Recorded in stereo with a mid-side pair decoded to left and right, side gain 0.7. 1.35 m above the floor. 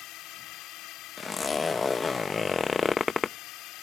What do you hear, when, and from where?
0.0 s a drone: 60° left
1.2 s a zipper: 20° left